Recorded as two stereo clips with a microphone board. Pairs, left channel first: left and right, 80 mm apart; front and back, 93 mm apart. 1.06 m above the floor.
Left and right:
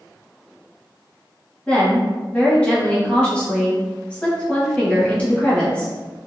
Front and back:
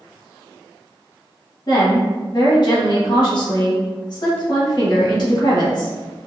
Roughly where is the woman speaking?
Ahead.